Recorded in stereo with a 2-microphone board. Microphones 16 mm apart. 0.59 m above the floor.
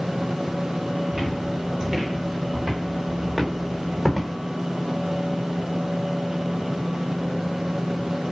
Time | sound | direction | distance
1.1 | footsteps | 30° right (ahead or behind) | 3 m